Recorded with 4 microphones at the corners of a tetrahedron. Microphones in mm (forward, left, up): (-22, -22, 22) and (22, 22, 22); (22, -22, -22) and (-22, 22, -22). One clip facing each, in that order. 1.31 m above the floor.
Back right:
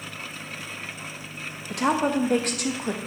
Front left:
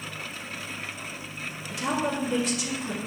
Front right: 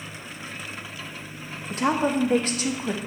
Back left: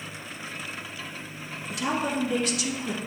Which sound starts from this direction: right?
A woman speaking, at 1.7 s.